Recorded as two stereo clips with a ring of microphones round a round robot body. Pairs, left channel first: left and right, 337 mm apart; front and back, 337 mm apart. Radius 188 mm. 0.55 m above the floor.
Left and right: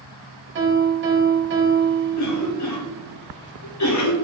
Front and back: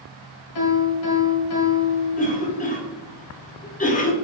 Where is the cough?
65° left, 1.6 m.